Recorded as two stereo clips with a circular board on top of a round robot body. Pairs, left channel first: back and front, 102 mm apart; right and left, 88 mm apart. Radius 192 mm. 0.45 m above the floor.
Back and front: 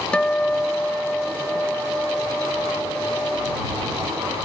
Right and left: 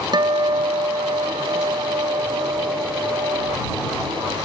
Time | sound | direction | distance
0.1 | a guitar | 100° left | ?